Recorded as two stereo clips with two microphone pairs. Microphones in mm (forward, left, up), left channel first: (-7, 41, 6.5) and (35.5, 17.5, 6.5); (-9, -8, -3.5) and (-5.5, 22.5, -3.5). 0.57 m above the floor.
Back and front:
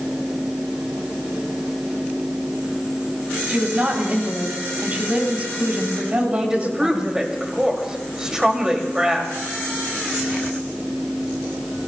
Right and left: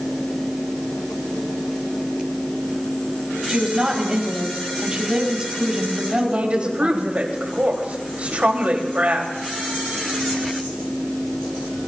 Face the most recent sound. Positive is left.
turn(degrees=45)